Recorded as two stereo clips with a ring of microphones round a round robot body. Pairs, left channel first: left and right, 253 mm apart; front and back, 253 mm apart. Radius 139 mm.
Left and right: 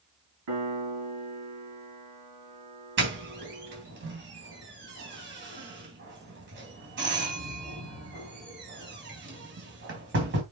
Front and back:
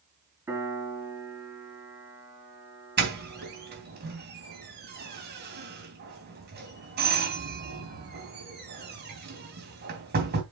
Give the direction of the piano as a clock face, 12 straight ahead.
3 o'clock.